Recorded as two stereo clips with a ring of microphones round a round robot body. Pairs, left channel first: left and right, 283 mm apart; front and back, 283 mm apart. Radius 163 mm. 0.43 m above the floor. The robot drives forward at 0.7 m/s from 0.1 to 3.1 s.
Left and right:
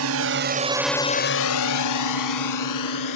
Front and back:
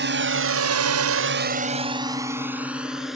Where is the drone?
130° right; by 3.2 s 90° left.